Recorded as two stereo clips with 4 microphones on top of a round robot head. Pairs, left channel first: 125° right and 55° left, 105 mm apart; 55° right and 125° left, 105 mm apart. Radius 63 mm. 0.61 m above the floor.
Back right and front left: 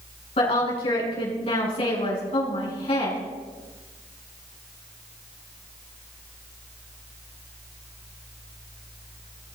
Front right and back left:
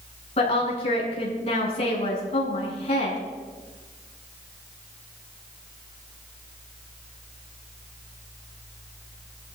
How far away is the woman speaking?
About 7.5 m.